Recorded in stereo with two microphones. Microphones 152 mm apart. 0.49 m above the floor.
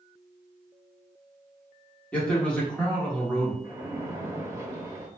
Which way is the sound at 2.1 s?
10° left (ahead or behind).